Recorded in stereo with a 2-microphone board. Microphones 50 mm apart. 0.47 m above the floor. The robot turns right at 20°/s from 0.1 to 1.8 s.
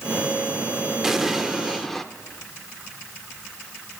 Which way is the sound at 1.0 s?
5° right (ahead or behind).